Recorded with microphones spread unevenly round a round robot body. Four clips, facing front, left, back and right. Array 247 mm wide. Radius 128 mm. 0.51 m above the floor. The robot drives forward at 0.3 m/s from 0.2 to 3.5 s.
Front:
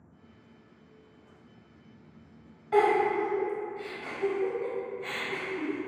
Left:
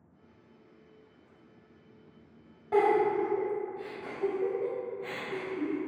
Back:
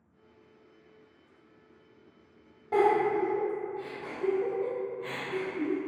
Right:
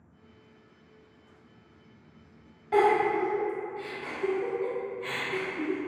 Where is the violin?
I don't hear a violin.